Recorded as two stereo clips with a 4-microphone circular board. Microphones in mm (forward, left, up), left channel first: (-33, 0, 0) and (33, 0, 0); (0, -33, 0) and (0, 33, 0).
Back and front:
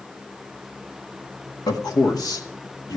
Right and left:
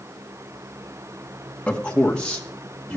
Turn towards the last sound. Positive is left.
turn(degrees=-170)